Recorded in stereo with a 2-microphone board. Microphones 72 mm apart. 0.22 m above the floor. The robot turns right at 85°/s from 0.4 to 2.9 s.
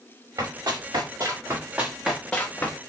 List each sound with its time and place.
0.4 s running footsteps: 60° right (ahead or behind), 2.5 m; by 2.8 s 40° left (ahead or behind), 1.1 m